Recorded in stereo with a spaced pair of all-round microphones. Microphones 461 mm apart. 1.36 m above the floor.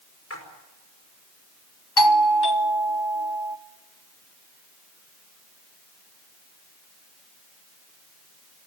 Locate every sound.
0.3 s a splash: 30° left (ahead or behind), 5 m
2.0 s a doorbell: 55° left (ahead or behind), 1.1 m